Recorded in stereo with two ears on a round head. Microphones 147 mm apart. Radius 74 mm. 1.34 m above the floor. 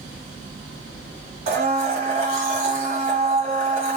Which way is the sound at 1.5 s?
40° right (ahead or behind).